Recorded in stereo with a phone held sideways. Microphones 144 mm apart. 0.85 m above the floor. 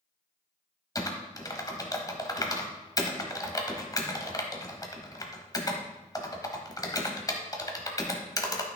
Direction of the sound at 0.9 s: 25° left (ahead or behind).